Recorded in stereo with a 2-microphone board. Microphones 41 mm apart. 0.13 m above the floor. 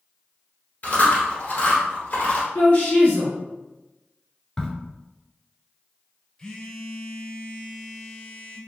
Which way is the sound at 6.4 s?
20° left (ahead or behind).